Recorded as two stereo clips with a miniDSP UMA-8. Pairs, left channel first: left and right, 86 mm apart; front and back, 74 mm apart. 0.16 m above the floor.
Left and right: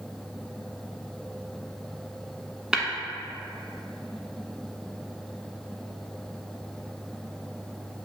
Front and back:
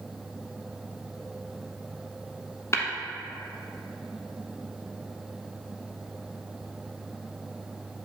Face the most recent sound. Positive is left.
turn(degrees=-15)